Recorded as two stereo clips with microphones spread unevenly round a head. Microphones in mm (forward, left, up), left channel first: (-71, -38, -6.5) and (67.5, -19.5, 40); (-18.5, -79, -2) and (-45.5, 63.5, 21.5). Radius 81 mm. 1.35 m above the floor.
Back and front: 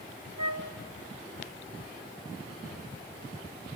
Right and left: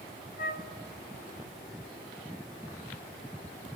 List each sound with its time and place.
0.4 s a flute: 50° right, 1.2 m